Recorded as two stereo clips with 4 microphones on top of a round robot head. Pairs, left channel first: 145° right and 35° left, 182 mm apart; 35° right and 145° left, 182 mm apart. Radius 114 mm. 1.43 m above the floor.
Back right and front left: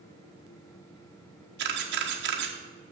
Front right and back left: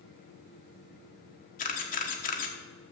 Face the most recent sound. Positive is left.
turn(degrees=10)